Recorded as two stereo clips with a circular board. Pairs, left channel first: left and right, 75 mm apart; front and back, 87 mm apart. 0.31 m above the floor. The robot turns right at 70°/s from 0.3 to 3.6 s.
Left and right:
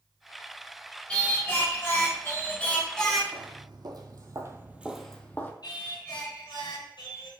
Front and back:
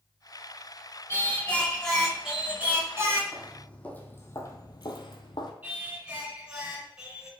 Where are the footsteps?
105° right, 0.9 m; by 5.5 s 25° left, 0.6 m.